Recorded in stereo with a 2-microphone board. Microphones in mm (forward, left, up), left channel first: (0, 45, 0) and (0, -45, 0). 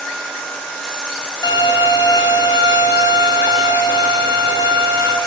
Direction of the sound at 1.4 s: 50° left (ahead or behind).